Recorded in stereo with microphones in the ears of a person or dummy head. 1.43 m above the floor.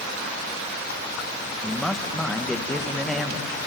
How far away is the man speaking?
About 1.6 m.